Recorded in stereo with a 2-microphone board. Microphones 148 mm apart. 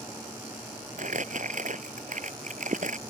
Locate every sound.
1.0 s crumpling: 60° right (ahead or behind)